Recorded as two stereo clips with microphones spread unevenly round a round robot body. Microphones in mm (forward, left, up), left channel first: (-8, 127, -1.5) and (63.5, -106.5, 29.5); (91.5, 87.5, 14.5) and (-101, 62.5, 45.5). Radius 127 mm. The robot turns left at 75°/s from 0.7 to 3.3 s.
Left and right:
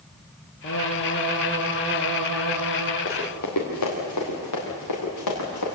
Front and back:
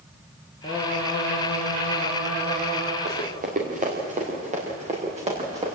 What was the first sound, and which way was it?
Singing, 65° left.